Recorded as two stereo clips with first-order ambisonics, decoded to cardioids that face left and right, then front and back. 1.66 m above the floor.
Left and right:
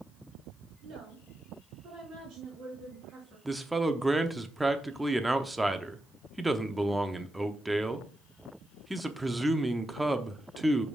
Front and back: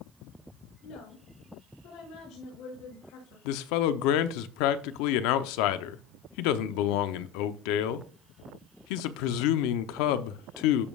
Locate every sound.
0.8 s a woman speaking: 35° right, 5.5 m; by 3.4 s 15° right, 5.5 m
3.5 s a man speaking: 5° right, 0.7 m